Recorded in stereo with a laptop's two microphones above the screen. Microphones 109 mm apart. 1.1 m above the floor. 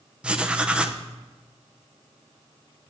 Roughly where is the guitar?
I don't hear a guitar.